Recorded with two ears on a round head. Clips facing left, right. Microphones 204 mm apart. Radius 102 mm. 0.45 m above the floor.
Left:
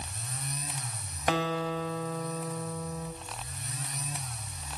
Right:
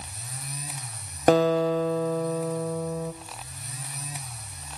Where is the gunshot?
I don't hear a gunshot.